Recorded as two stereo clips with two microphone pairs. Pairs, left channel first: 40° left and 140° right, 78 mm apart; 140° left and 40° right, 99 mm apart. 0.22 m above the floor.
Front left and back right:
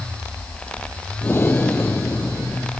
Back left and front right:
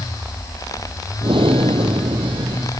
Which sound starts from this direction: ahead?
Breathing, at 1.2 s.